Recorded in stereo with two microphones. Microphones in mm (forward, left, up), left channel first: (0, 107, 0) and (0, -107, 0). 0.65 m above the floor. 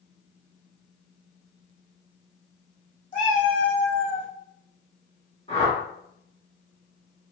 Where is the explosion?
I don't hear an explosion.